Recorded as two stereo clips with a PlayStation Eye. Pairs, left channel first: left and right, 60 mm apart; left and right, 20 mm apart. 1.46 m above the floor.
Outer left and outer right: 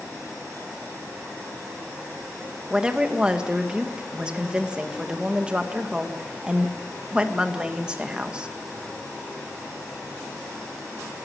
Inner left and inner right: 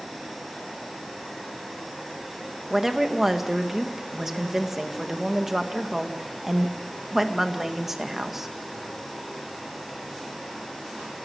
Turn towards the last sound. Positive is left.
turn(degrees=-15)  # may be behind; listen again after turning